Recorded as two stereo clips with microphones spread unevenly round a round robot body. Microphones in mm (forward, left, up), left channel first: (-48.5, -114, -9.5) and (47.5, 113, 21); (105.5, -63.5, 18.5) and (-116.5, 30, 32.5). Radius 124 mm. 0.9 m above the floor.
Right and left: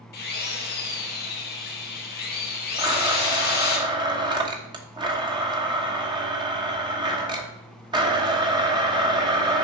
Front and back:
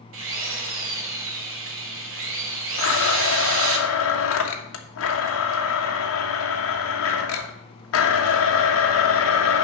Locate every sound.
0.1 s a drill: 165° right, 2 m
2.8 s a blender: 10° right, 1.4 m